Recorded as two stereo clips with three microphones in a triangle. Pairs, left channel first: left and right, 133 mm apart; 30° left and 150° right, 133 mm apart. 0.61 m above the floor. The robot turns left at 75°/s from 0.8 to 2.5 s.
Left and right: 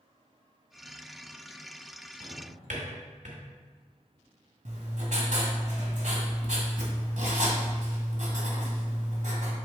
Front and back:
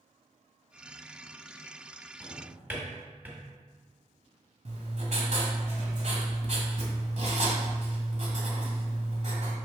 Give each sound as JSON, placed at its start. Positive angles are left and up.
{"t": 2.2, "sound": "a drawer", "azimuth_deg": -50, "distance_m": 1.8}
{"t": 4.7, "sound": "writing", "azimuth_deg": -120, "distance_m": 1.6}